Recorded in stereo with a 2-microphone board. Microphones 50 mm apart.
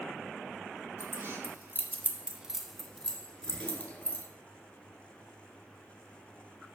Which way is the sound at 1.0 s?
45° right (ahead or behind).